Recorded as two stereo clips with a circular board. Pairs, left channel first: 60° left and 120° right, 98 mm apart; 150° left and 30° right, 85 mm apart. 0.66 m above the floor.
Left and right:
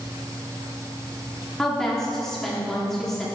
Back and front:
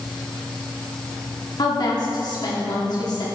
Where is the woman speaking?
145° left, 1.5 m.